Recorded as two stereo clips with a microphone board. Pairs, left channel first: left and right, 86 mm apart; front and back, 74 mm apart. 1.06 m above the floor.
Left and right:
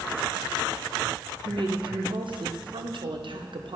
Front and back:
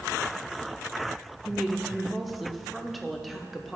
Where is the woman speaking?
90° right, 0.7 m.